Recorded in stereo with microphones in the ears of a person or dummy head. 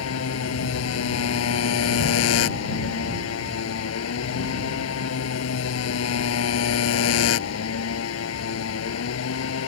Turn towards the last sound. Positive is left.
turn(degrees=85)